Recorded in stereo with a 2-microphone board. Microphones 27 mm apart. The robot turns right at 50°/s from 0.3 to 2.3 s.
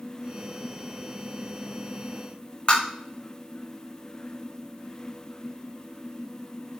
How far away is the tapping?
About 3.5 m.